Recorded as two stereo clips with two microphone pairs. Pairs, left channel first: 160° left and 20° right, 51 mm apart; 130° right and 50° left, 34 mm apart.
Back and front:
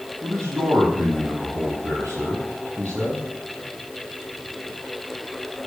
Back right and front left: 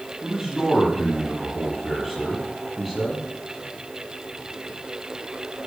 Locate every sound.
0.2 s a man speaking: 40° right, 6.5 m